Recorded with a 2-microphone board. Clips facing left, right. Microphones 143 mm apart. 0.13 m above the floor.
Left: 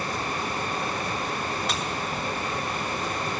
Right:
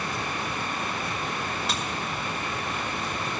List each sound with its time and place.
1.7 s a dropped coin: 5° right (ahead or behind), 6 m